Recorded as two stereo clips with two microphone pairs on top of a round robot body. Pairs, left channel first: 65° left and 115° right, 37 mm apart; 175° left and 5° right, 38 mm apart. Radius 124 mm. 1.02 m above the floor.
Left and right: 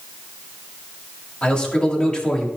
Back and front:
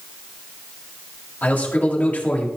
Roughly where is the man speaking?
Behind left.